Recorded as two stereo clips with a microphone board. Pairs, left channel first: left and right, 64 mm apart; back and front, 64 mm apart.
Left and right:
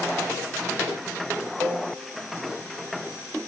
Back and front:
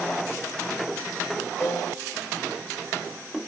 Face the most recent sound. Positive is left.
turn(degrees=-135)